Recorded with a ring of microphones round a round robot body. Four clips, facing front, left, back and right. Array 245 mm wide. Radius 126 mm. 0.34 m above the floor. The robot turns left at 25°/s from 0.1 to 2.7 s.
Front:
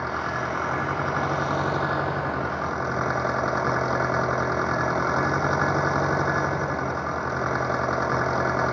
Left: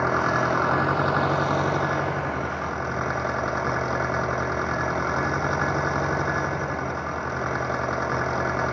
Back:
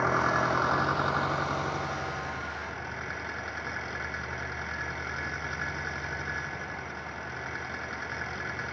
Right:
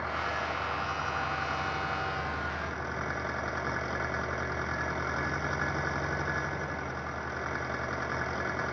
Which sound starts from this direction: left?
An engine running, at 0.0 s.